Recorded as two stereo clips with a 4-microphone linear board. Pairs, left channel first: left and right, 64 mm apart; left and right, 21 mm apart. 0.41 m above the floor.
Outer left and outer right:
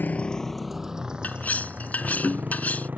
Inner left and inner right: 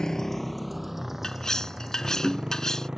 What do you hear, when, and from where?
0.0 s a motorcycle: 30° left (ahead or behind); by 3.0 s 30° right (ahead or behind)
1.2 s cutlery clinking: 25° left (ahead or behind)